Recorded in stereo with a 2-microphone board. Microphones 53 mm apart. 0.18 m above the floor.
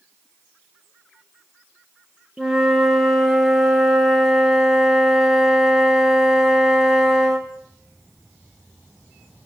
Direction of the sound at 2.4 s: 5° right (ahead or behind).